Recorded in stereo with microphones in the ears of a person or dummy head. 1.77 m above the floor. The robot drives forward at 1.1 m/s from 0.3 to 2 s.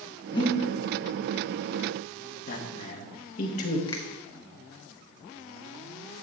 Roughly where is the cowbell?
I don't hear a cowbell.